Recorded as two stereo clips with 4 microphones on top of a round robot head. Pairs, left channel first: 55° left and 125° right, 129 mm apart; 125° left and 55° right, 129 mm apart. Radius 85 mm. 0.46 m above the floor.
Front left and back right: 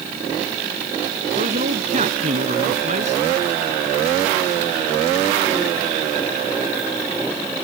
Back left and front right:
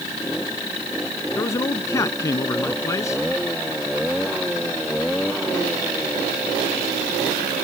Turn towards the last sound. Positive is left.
turn(degrees=-165)